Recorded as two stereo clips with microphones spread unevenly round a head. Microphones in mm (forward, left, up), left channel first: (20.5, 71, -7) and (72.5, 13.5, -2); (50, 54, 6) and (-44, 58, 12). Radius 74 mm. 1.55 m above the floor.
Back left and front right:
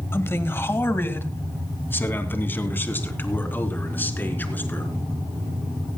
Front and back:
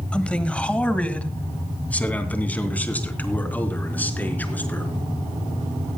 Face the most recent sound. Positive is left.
turn(degrees=70)